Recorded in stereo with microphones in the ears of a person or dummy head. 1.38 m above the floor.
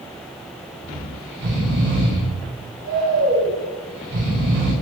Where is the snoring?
65° right (ahead or behind), 3.5 m.